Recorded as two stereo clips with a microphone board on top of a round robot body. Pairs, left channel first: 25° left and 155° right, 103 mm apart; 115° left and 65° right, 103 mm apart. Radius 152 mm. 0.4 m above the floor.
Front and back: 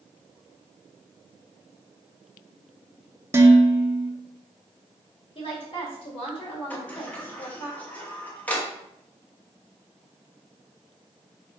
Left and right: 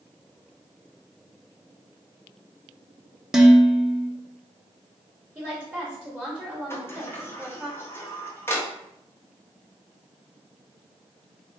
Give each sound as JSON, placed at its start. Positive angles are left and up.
{"t": 3.3, "sound": "dishes clattering", "azimuth_deg": -145, "distance_m": 0.7}
{"t": 5.3, "sound": "a woman speaking", "azimuth_deg": 10, "distance_m": 1.5}
{"t": 6.7, "sound": "a sliding door", "azimuth_deg": 80, "distance_m": 1.1}